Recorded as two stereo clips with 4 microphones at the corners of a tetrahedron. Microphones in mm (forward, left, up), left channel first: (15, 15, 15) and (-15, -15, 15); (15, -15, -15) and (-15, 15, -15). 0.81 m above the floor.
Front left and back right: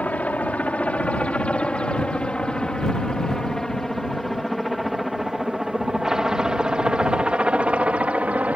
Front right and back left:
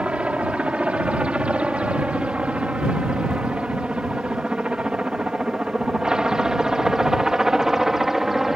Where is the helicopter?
85° left; by 8.6 s 145° right.